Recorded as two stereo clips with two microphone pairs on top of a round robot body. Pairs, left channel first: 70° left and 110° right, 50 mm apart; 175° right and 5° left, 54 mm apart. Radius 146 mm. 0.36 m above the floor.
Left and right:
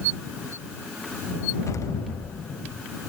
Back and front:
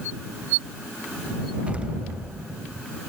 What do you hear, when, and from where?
1.7 s an explosion: 70° left